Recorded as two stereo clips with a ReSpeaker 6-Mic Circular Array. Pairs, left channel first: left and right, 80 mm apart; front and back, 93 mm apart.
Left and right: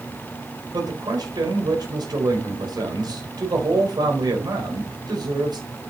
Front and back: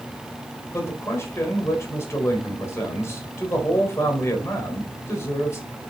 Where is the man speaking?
60° right, 4 m.